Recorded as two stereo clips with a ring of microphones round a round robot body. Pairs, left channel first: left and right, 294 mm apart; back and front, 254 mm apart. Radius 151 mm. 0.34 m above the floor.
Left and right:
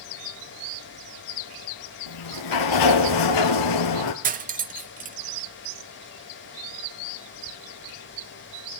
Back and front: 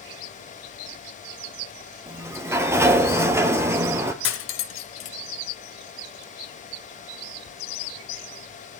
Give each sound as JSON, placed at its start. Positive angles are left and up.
{"t": 2.1, "sound": "a sliding door", "azimuth_deg": 80, "distance_m": 1.8}
{"t": 4.2, "sound": "cutlery clinking", "azimuth_deg": -150, "distance_m": 0.9}